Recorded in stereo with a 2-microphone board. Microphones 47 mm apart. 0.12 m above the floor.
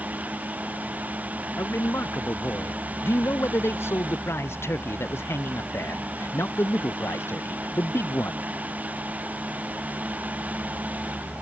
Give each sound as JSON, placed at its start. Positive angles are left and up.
{"t": 1.6, "sound": "a man speaking", "side_deg": 60}